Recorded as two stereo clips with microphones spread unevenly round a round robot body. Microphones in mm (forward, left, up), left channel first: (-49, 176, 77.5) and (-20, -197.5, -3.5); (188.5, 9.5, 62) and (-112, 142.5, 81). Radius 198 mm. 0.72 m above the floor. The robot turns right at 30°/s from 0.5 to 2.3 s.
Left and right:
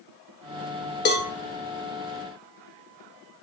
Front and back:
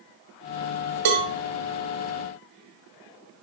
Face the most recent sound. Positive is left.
turn(degrees=-165)